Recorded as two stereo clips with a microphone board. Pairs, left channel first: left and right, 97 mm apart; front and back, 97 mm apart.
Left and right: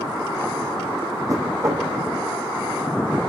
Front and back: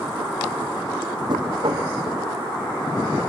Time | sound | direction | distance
1.3 | knocking | 145° right | 4.5 m